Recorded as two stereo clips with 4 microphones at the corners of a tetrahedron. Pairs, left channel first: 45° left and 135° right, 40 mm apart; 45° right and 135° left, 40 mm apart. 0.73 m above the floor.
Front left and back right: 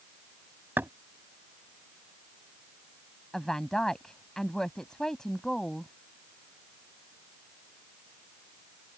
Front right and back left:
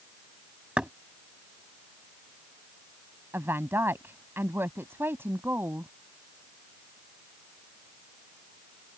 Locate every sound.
0.8 s knocking: 160° right
3.3 s a woman speaking: 125° left